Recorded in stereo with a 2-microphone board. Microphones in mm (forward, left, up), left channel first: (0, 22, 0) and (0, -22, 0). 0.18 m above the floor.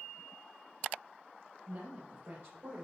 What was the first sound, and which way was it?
A woman speaking, 45° right (ahead or behind).